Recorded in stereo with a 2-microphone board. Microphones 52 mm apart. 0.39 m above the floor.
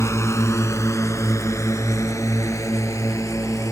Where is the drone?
65° left (ahead or behind); by 3.7 s 80° left.